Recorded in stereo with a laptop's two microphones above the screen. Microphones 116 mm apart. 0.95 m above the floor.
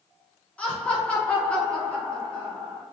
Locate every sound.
0.6 s laughter: 10° left (ahead or behind), 0.9 m